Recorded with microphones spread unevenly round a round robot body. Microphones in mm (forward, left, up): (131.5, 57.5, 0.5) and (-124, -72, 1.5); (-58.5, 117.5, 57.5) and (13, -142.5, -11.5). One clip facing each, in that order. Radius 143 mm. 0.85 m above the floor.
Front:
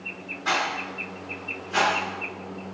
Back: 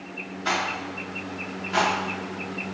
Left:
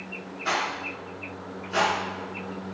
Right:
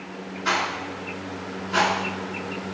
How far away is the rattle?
About 1.4 m.